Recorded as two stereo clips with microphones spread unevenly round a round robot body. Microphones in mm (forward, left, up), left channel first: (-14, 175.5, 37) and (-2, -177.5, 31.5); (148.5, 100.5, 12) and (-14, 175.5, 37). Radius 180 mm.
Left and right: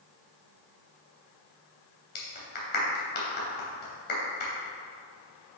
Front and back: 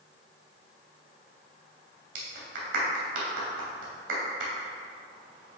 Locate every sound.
2.1 s a clap: 155° left, 2 m